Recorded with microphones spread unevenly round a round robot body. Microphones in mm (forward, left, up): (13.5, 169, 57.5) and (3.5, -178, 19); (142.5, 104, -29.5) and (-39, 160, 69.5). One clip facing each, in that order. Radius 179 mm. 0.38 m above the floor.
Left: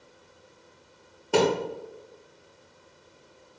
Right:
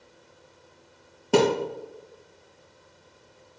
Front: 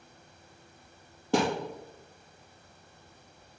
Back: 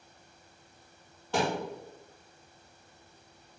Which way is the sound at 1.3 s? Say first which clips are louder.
Right 2 dB, front 4 dB; 70° right.